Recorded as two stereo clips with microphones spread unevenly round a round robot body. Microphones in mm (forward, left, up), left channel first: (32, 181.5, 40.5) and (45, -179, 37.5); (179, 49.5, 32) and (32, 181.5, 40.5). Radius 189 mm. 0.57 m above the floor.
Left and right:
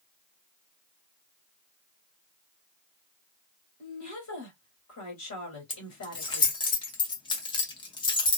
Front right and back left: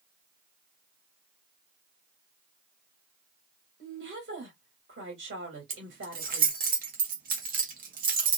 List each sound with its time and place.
3.8 s a woman speaking: 135° left, 1.6 m
5.7 s keys jangling: 165° left, 0.6 m